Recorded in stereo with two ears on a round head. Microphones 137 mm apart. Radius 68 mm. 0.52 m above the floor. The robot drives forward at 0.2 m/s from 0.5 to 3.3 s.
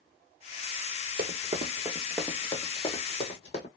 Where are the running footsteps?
55° right (ahead or behind), 1.0 m; by 3.7 s 45° left (ahead or behind), 1.6 m.